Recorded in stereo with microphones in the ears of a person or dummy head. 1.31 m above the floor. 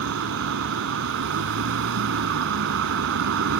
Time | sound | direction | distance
0.0 | a vehicle | 75° right (ahead or behind) | ?